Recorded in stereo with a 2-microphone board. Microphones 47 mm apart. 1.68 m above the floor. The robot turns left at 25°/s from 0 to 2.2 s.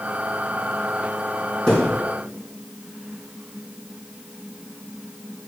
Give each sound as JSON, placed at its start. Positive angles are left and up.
{"t": 1.7, "sound": "a thud", "side_deg": 15, "distance_m": 3.5}